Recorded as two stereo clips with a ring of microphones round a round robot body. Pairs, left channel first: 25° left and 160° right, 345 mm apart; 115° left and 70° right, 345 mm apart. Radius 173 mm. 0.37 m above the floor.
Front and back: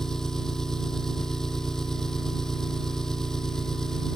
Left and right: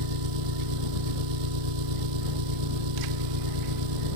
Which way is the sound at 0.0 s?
65° right.